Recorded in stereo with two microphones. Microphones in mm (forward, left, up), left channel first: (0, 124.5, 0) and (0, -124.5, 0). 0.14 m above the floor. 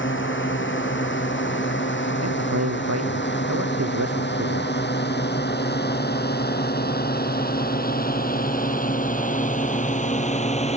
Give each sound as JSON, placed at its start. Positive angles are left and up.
{"t": 0.0, "sound": "a drone", "side_deg": 50}
{"t": 2.2, "sound": "a man speaking", "side_deg": -85}